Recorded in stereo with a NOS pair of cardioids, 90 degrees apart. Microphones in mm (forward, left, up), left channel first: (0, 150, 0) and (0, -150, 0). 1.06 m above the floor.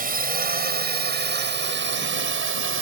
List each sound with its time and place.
0.0 s a drone: 30° right; by 2.8 s 45° right